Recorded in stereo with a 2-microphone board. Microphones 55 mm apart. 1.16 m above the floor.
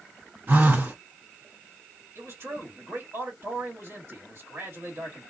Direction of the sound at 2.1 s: 50° right (ahead or behind).